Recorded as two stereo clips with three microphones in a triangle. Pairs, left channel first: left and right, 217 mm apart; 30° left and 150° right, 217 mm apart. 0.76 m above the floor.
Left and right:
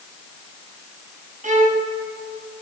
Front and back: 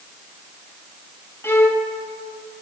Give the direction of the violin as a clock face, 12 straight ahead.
2 o'clock.